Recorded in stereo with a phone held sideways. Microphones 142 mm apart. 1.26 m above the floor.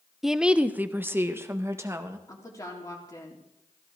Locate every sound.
0.2 s a woman speaking: centre (ahead or behind), 0.6 m; by 2.2 s 20° right (ahead or behind), 1.6 m
2.3 s a woman speaking: 25° left (ahead or behind), 3.5 m